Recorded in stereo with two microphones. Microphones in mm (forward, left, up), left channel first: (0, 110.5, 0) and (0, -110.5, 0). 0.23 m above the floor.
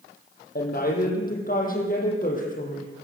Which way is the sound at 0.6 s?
45° left (ahead or behind).